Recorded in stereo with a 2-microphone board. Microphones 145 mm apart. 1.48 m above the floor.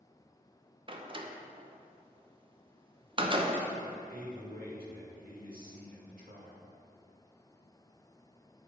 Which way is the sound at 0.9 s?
35° right (ahead or behind).